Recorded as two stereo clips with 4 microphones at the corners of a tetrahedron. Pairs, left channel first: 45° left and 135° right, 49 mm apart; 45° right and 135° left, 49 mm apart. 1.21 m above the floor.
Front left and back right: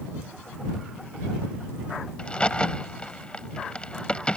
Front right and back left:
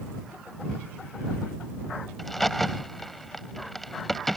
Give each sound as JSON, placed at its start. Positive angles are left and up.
{"t": 2.2, "sound": "a crack", "azimuth_deg": 30}